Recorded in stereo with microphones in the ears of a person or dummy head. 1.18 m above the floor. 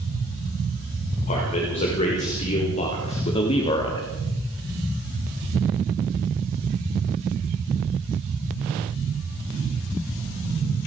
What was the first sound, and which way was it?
A man speaking, 35° left (ahead or behind).